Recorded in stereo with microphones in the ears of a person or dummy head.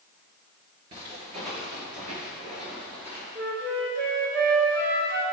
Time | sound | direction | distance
0.9 | footsteps | 35° right (ahead or behind) | 2.0 m
3.4 | a flute | 65° right (ahead or behind) | 2.5 m